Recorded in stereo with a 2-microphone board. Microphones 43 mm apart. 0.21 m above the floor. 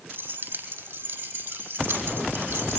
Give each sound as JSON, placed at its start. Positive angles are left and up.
{"t": 0.1, "sound": "keys jangling", "side_deg": -55, "distance_m": 7.5}